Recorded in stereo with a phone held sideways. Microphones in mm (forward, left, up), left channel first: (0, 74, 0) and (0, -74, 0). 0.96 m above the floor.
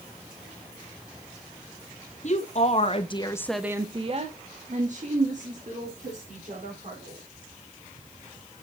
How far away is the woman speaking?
About 2 m.